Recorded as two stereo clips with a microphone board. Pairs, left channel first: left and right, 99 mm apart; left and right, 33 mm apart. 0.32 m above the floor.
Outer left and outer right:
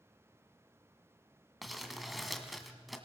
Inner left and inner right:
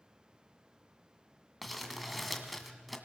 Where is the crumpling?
Centre (ahead or behind), 1.9 m.